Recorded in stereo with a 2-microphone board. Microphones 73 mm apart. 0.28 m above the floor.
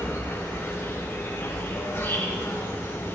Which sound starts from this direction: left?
An insect, at 0.0 s.